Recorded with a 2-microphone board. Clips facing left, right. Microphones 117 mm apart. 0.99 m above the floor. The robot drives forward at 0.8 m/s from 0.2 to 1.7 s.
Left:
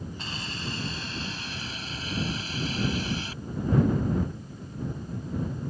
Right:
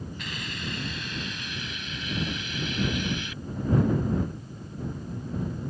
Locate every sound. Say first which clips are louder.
0.2 s a hiss: even; 30° left (ahead or behind); by 3.4 s 35° left (ahead or behind)